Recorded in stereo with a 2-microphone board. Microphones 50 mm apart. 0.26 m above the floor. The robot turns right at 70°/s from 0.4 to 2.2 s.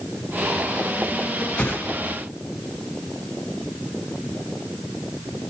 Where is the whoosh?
25° left (ahead or behind), 1.3 m; by 1.8 s 35° left (ahead or behind), 1.3 m.